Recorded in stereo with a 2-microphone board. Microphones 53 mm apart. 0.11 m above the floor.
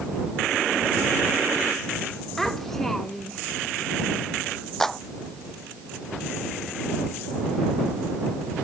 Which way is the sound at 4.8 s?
5° left (ahead or behind).